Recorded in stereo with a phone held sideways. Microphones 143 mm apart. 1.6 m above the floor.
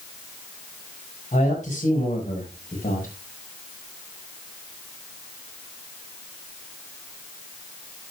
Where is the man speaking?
55° left (ahead or behind), 7 m; by 3.1 s 65° left (ahead or behind), 6 m.